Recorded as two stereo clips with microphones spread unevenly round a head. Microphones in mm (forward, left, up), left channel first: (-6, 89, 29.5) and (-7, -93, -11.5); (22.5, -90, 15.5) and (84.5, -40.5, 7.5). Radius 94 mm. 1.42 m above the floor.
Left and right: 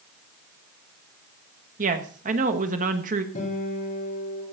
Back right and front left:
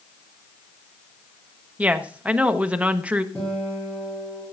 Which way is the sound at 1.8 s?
35° right.